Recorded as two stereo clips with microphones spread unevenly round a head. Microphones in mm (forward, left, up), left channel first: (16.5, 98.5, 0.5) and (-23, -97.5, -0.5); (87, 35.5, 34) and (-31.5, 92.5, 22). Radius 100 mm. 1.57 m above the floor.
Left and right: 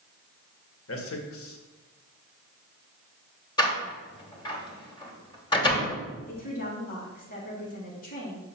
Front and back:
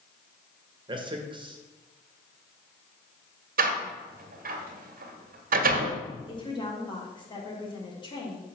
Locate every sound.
0.9 s a man speaking: 100° left, 1.9 m
3.6 s a door slam: 150° left, 1.6 m
6.3 s a woman speaking: 25° left, 3 m